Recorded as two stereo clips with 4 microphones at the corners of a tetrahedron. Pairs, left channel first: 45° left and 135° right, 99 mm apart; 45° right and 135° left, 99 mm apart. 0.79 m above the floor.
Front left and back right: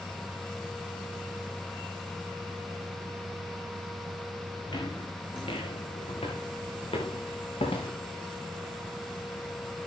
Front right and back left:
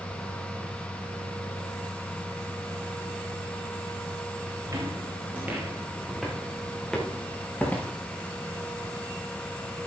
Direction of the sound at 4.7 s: 80° left.